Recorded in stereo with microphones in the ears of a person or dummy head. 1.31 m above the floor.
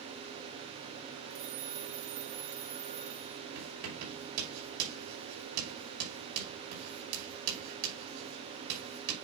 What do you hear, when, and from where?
1.3 s a phone ringing: 70° right (ahead or behind), 3 m
3.5 s writing: 80° right, 5.5 m